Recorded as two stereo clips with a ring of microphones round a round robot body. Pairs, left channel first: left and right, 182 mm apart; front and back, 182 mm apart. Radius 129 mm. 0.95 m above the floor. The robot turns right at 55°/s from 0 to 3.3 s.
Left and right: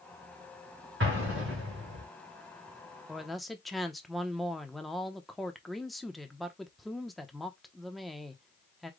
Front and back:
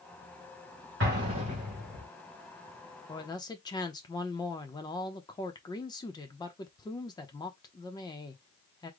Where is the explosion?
140° right, 2.5 m; by 2.0 s 80° right, 2.5 m.